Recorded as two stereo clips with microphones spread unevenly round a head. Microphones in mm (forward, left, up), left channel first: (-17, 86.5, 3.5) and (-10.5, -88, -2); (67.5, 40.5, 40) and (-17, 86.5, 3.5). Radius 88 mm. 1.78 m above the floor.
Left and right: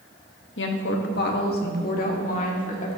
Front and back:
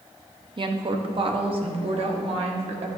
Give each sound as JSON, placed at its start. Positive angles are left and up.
{"t": 0.6, "sound": "a woman speaking", "azimuth_deg": 110, "distance_m": 1.3}